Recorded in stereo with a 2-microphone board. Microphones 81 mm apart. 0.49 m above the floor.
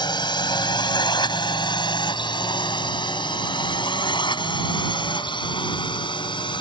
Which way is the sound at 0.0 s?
65° left (ahead or behind).